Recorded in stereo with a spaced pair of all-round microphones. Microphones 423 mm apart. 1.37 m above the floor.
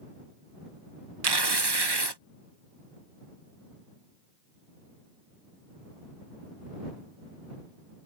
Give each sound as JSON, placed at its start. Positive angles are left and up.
{"t": 1.2, "sound": "tearing paper", "side_deg": -70}